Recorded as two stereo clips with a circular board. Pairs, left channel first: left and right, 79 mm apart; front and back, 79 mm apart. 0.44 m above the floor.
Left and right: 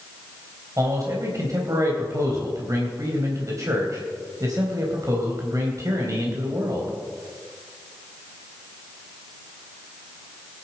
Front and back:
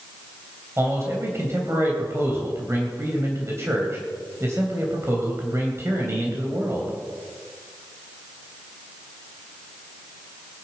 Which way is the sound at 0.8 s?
130° right.